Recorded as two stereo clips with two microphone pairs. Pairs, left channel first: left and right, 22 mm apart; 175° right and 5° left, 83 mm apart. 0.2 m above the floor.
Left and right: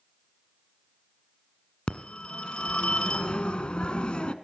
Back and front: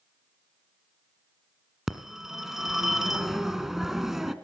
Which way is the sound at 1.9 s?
90° left.